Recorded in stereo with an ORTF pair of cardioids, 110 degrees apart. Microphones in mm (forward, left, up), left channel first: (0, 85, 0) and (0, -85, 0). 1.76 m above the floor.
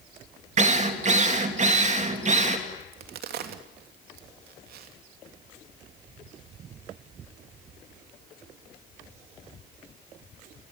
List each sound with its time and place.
0.6 s a drill: 45° right, 2.5 m
2.8 s a crack: 65° right, 3 m